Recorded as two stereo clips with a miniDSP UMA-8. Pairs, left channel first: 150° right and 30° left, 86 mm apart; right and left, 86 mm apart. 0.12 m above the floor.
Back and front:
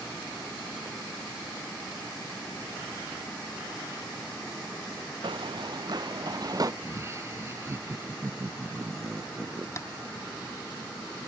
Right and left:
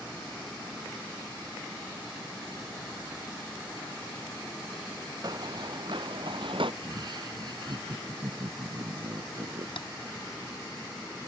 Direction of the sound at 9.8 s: 95° right.